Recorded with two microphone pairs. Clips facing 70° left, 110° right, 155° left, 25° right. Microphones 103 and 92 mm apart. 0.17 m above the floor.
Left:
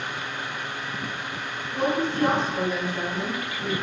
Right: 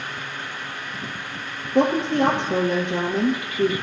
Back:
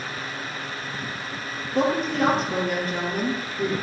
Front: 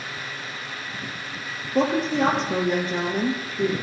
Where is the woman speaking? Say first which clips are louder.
Right 5 dB, front 1 dB; 100° right, 3.5 m.